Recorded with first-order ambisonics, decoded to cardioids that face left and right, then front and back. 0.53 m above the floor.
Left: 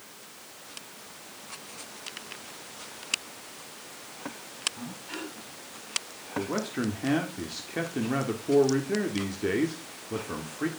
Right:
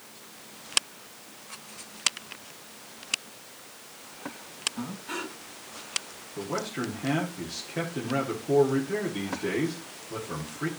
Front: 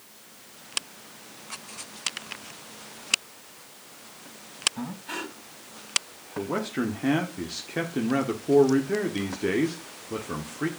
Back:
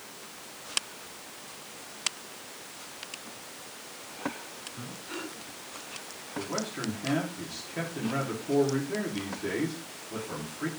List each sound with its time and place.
4.8 s breathing: 10° right, 3 m
6.4 s a man speaking: 20° left, 1.5 m